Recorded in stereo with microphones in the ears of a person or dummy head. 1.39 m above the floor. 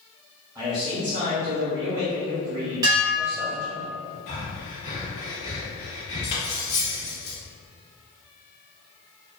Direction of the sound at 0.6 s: 10° right (ahead or behind).